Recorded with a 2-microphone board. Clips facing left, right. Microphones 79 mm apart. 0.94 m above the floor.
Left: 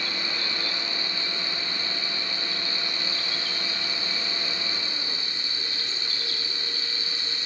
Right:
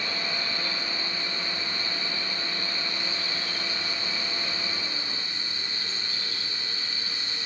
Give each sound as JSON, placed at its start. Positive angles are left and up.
{"t": 0.0, "sound": "an insect", "side_deg": 85, "distance_m": 6.5}